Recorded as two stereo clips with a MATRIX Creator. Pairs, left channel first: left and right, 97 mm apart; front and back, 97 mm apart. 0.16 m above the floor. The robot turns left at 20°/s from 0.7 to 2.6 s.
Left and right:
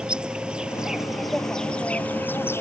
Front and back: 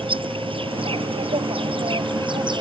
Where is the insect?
170° right; by 2.6 s 150° left.